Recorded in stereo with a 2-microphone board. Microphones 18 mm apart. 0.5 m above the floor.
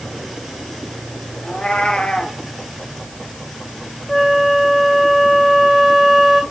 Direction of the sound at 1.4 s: 70° left (ahead or behind).